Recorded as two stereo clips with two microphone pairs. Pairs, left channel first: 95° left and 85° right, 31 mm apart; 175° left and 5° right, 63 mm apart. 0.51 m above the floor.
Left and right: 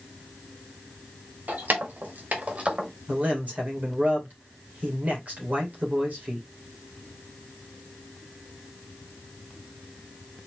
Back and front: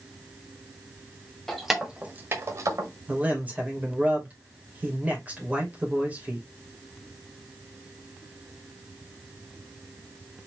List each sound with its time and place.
1.5 s keys jangling: 100° right, 1.5 m; by 2.9 s 20° right, 1.5 m
3.1 s a man speaking: 65° right, 2.5 m